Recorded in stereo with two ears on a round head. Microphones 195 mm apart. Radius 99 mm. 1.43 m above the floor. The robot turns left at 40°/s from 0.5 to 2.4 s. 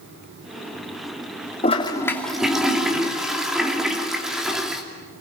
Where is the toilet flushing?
30° left, 2.5 m; by 4.8 s straight ahead, 2.5 m.